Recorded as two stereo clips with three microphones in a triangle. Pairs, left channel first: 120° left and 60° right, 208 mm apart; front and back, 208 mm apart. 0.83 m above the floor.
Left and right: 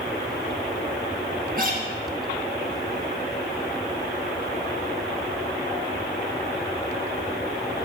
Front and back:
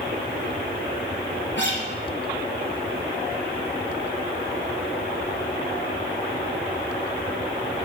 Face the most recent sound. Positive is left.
turn(degrees=-20)